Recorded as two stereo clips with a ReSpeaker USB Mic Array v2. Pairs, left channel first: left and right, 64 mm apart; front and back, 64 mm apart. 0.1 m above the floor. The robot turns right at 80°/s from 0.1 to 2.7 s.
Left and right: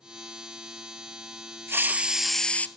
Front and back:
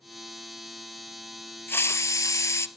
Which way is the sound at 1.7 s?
50° right.